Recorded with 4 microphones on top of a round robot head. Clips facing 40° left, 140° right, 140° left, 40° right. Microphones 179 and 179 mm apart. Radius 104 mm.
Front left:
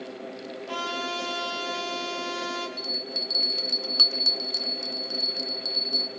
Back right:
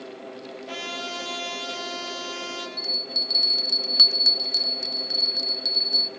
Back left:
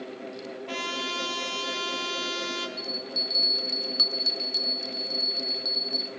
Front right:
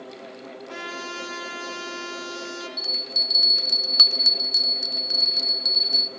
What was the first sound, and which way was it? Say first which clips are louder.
A trumpet: front left 3 dB, even; 145° left.